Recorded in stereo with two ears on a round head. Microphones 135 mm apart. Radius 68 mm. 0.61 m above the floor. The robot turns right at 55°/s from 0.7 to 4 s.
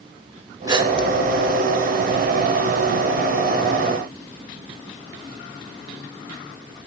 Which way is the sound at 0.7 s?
25° right (ahead or behind).